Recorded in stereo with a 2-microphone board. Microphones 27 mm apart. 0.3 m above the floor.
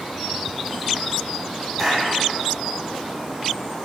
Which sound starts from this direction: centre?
A clap, at 1.8 s.